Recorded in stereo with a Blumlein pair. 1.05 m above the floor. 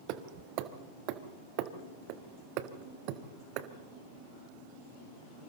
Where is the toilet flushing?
I don't hear a toilet flushing.